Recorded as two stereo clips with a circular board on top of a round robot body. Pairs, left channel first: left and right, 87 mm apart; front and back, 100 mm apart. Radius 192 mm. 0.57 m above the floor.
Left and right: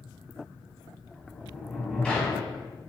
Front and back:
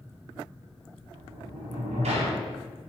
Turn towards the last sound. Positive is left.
turn(degrees=170)